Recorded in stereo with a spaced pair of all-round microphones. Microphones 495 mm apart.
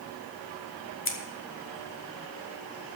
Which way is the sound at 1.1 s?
25° left (ahead or behind).